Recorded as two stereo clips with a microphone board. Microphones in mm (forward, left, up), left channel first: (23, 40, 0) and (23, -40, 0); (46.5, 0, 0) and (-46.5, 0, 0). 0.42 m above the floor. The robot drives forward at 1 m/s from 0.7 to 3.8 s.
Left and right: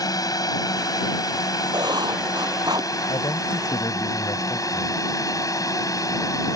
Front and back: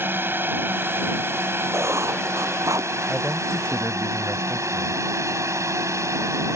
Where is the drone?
120° left; by 6.6 s 130° left.